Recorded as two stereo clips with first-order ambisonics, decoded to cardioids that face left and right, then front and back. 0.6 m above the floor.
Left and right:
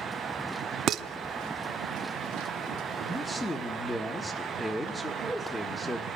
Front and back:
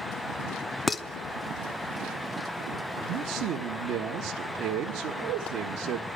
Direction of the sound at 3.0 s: 170° left.